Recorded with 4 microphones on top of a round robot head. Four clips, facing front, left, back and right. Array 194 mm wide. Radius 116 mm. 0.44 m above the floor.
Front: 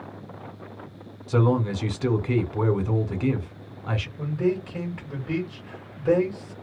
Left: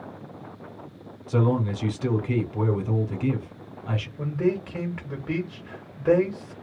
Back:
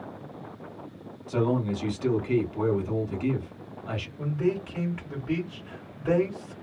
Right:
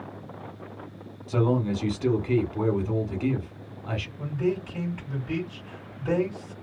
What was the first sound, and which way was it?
A man speaking, straight ahead.